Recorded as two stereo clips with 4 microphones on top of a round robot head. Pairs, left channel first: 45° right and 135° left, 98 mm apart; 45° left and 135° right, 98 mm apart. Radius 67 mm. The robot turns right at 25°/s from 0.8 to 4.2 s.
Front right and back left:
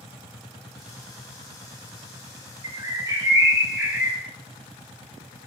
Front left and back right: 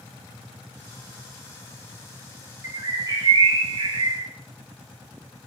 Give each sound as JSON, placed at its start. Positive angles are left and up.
{"t": 2.6, "sound": "a bird", "azimuth_deg": 175, "distance_m": 1.5}